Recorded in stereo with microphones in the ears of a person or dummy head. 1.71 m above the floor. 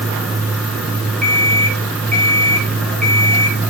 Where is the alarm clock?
5° left (ahead or behind), 5.5 m.